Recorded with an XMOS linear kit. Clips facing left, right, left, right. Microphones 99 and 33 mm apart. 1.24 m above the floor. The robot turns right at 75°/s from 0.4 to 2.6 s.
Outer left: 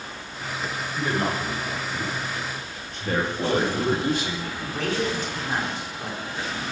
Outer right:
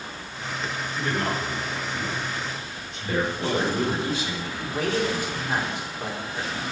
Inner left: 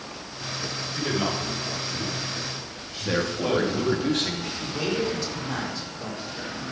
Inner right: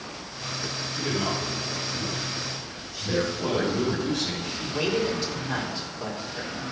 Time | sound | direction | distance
0.9 | a man speaking | 5° left | 6 m
3.1 | a man speaking | 60° left (ahead or behind) | 2.5 m
4.6 | a man speaking | 10° right (ahead or behind) | 4 m